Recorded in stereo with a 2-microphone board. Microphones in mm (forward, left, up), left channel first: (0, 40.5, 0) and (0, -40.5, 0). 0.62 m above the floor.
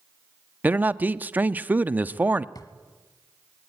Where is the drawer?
50° left (ahead or behind), 1.3 m.